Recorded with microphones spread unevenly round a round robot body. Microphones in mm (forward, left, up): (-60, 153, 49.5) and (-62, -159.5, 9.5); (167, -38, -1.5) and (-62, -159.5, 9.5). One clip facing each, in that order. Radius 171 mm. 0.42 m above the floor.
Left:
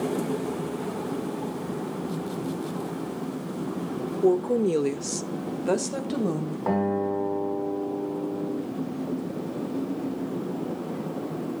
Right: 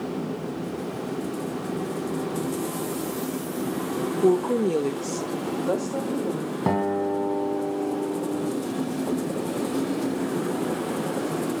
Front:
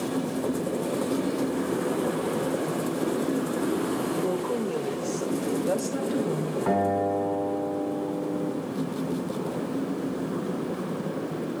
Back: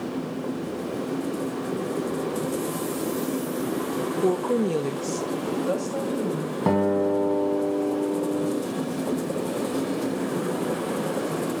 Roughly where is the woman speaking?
Behind right.